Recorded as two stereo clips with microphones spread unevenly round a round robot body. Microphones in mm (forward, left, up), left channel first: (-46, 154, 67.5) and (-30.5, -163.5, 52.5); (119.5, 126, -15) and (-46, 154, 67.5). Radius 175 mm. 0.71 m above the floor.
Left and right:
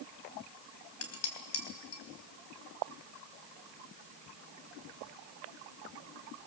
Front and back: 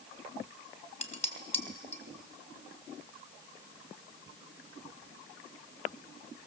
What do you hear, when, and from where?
1.0 s dishes clattering: 45° left, 3.5 m